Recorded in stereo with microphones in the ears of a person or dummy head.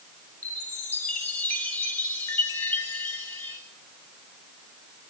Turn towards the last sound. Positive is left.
turn(degrees=10)  # may be behind; listen again after turning